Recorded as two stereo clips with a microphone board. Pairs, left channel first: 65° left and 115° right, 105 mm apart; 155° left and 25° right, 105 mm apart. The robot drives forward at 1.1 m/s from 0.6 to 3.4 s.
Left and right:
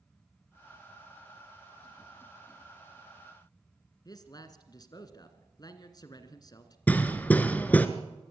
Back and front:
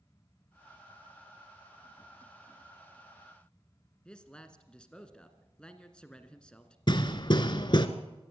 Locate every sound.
4.0 s a man speaking: 80° left, 1.6 m
6.9 s hammering: 140° left, 1.1 m